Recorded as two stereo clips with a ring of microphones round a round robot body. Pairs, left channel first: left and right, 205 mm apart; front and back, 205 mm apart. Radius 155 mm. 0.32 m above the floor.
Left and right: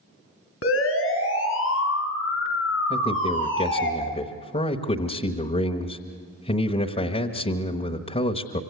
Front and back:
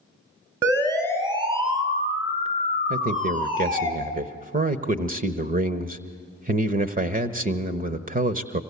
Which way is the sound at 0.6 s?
105° left.